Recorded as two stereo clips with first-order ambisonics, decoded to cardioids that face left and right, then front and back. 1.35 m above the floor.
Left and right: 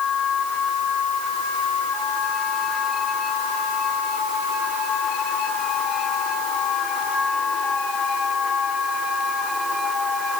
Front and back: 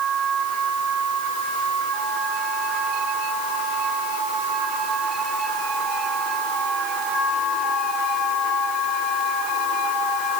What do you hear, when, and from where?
Only background noise.